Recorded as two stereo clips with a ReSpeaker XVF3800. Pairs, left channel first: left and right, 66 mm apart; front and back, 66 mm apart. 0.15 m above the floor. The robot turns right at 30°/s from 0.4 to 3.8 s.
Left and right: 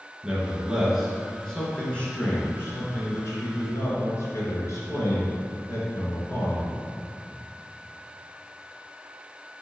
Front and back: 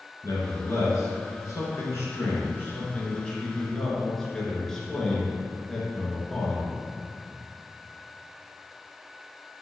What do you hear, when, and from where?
0.2 s a man speaking: 25° right, 2.5 m; by 6.8 s 80° left, 2.5 m